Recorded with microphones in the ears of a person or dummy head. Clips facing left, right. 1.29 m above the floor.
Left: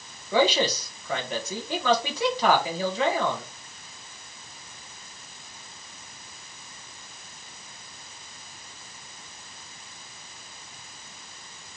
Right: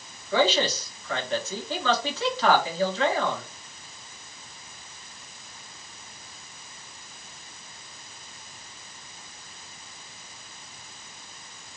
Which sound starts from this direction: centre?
A man speaking, at 0.3 s.